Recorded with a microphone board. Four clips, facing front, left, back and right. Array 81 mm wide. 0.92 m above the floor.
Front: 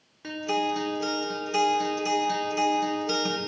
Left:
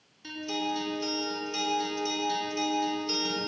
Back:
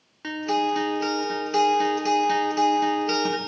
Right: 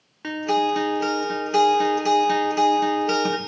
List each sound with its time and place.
0.2 s a guitar: 115° right, 2 m